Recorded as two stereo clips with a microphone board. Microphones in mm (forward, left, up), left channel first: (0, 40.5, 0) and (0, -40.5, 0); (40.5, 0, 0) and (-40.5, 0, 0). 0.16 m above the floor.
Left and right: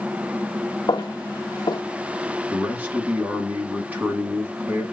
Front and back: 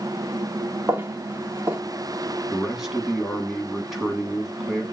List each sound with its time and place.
0.9 s footsteps: 125° left, 0.7 m
2.5 s a man speaking: 100° right, 1.2 m